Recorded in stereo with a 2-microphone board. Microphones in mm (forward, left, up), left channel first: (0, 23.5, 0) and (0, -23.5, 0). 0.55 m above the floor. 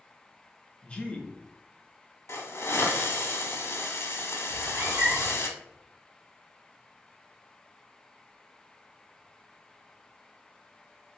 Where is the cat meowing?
65° right (ahead or behind), 1.1 m.